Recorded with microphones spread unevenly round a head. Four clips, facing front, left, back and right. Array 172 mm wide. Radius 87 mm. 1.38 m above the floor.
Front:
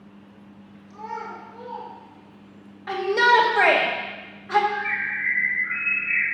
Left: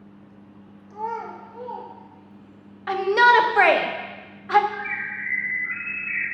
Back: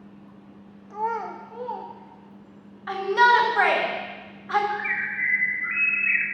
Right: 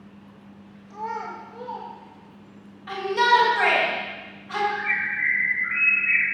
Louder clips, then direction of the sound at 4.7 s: Right 4 dB, front 1 dB; 170° right.